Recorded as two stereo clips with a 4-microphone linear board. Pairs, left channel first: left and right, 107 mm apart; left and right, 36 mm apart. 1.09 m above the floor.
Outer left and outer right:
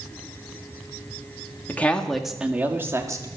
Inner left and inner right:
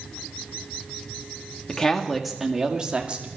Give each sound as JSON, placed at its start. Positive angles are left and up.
{"t": 1.7, "sound": "a woman speaking", "side_deg": 15, "distance_m": 1.9}